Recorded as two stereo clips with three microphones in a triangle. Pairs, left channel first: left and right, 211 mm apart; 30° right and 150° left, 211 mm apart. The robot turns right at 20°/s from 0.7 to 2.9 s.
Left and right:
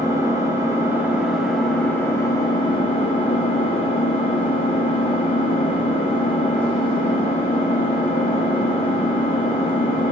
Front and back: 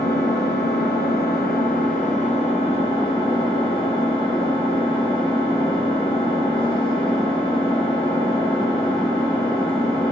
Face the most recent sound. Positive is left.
turn(degrees=30)